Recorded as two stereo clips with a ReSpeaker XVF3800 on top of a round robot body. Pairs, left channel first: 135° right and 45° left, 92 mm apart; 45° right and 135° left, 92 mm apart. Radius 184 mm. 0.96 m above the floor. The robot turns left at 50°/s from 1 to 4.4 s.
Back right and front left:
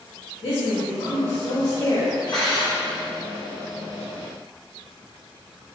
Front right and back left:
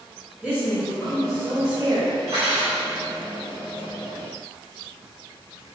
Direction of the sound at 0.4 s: 125° right.